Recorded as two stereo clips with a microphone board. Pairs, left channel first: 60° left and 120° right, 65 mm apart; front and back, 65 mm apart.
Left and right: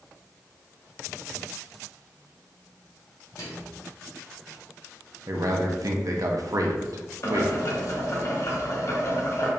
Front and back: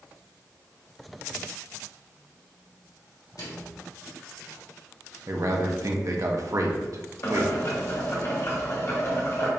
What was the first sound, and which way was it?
A microwave, 25° left.